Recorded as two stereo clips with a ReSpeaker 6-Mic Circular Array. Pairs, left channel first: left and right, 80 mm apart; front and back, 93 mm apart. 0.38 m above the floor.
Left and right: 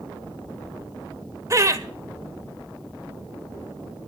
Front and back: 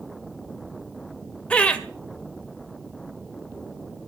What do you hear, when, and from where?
1.5 s laughter: 70° right, 1.7 m